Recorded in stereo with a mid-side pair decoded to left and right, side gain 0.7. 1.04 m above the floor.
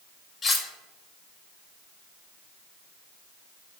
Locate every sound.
0.4 s cutlery clinking: 30° left, 0.7 m